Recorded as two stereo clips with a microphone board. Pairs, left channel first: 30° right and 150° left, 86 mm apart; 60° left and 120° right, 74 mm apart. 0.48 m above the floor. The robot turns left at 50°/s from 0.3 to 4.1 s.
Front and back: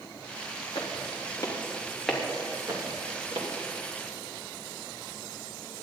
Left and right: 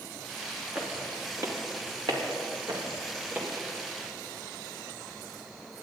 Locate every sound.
0.8 s footsteps: 35° right, 3 m; by 3.5 s 165° left, 4 m